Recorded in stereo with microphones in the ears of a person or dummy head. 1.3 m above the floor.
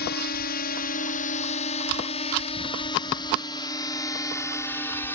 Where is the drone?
55° left (ahead or behind); by 5.2 s 15° left (ahead or behind).